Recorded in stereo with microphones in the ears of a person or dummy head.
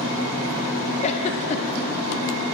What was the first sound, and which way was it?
A giggle, 35° left (ahead or behind).